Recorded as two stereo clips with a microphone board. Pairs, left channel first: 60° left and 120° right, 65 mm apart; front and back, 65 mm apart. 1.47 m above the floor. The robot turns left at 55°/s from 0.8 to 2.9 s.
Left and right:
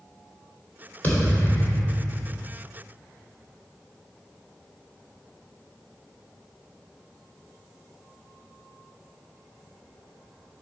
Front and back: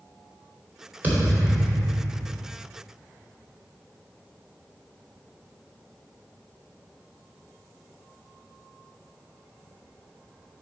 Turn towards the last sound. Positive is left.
turn(degrees=15)